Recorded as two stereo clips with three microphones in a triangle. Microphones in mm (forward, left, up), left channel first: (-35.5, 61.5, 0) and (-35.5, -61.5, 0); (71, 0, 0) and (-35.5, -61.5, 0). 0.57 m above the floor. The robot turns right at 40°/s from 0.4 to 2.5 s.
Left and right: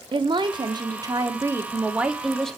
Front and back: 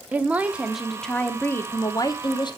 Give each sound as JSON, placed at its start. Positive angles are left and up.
{"t": 0.1, "sound": "a woman speaking", "azimuth_deg": -75, "distance_m": 0.8}